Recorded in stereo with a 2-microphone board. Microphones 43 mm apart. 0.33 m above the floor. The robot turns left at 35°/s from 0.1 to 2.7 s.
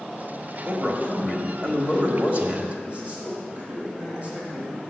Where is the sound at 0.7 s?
50° right, 1.5 m; by 2.7 s 125° right, 1.5 m.